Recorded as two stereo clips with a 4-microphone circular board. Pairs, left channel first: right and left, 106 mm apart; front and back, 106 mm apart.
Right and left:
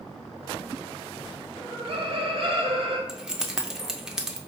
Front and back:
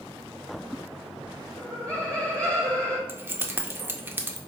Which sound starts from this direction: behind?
Keys jangling, at 3.1 s.